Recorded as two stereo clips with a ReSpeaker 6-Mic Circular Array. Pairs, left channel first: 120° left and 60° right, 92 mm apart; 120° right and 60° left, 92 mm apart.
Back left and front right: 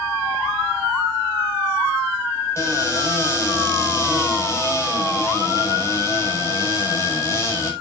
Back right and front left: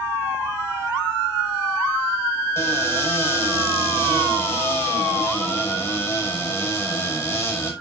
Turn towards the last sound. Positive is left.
turn(degrees=180)